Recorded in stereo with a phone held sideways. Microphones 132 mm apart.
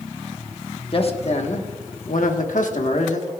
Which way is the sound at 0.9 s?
45° left (ahead or behind).